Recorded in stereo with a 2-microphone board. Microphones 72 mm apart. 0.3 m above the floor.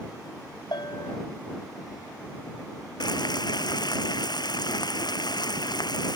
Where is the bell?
80° left.